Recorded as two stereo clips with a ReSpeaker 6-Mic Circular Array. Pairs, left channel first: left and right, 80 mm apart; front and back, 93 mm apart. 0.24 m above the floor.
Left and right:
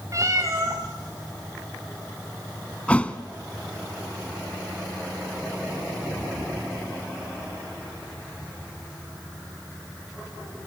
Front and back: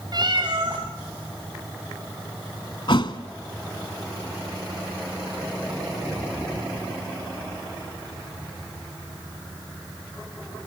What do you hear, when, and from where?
0.1 s a cat meowing: 140° right, 5 m
2.9 s a thud: 15° left, 1.2 m